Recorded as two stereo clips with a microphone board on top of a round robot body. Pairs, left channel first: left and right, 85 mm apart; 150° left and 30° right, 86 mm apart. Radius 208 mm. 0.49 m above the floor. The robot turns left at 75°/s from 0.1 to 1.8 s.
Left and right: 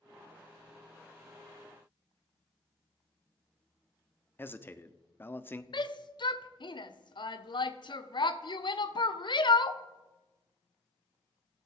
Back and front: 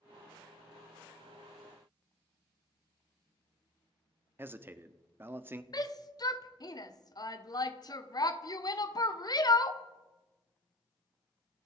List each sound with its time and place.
4.4 s a man speaking: 30° left, 1.4 m
5.7 s a shout: 115° left, 1.5 m